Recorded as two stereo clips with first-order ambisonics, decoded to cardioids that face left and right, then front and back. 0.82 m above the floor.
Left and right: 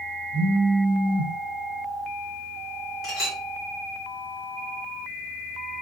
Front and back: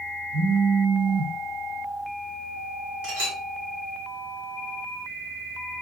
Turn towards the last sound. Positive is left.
turn(degrees=155)